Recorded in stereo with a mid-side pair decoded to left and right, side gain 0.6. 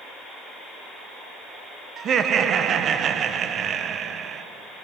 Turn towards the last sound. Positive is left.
turn(degrees=-45)